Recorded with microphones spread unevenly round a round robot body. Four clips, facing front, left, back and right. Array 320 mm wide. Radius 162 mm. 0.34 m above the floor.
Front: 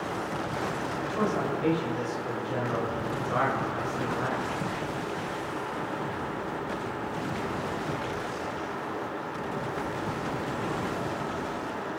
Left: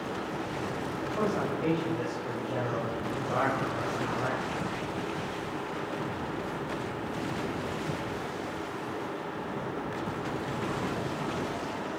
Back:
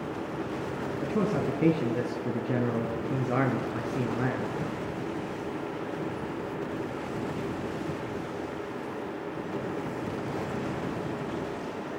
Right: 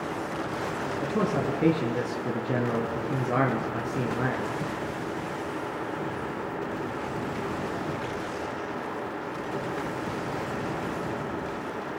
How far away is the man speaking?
About 5 m.